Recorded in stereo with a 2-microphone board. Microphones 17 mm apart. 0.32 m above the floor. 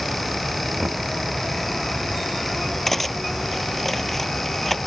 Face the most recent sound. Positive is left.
turn(degrees=15)  # may be behind; listen again after turning